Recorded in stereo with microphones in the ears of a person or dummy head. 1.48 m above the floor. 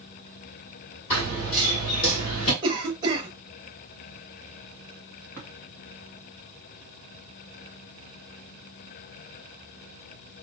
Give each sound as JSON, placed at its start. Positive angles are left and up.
{"t": 1.1, "sound": "running footsteps", "side_deg": 35, "distance_m": 1.9}
{"t": 2.6, "sound": "a cough", "side_deg": -25, "distance_m": 0.6}
{"t": 5.4, "sound": "tapping", "side_deg": 15, "distance_m": 1.3}